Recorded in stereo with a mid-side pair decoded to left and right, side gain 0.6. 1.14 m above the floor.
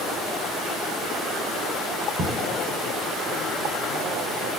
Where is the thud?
45° right, 6 m.